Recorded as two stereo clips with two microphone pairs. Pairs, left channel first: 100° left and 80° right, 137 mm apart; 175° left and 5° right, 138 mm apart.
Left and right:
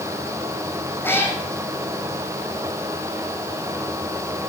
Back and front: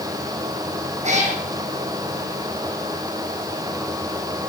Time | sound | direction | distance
1.0 | a cat meowing | 25° left | 3 m